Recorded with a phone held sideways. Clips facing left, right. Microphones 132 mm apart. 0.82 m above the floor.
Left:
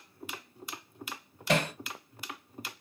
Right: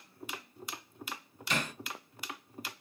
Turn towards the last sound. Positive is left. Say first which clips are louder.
# left 8 dB
turn(degrees=75)  # may be behind; listen again after turning